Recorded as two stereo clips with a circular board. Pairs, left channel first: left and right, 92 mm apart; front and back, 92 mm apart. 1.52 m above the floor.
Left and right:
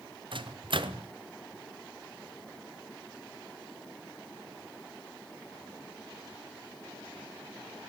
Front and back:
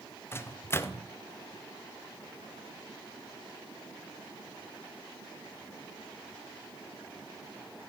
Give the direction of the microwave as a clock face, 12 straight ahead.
2 o'clock.